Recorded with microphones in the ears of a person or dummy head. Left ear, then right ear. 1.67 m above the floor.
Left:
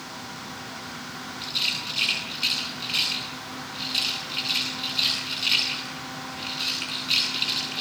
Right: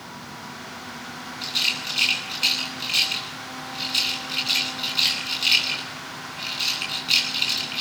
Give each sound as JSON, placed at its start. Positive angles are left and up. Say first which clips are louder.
{"t": 1.4, "sound": "a rattle", "louder": "right 3 dB", "side_deg": -15, "distance_m": 10.0}